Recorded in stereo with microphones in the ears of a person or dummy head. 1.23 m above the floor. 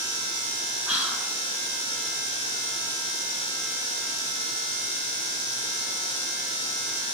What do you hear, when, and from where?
0.9 s whispering: 5° right (ahead or behind), 0.9 m